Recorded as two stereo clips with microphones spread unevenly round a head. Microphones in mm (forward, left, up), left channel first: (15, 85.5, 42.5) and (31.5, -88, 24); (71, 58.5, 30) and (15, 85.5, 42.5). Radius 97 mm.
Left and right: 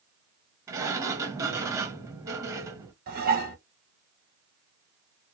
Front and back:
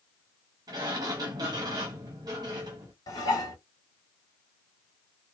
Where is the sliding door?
155° right, 0.6 m.